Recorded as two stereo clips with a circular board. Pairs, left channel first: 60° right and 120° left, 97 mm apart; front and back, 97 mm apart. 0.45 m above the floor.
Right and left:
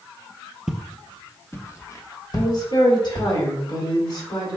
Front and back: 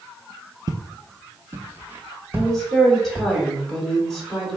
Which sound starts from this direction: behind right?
Footsteps, at 0.7 s.